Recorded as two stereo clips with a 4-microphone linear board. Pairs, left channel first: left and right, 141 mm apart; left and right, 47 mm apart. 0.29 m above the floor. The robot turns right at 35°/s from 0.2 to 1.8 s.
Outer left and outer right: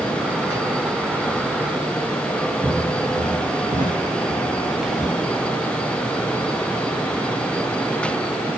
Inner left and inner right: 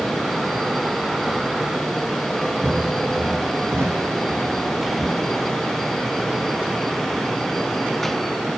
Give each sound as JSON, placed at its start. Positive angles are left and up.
{"t": 2.6, "sound": "footsteps", "side_deg": -40, "distance_m": 4.0}
{"t": 4.8, "sound": "whispering", "side_deg": -5, "distance_m": 1.4}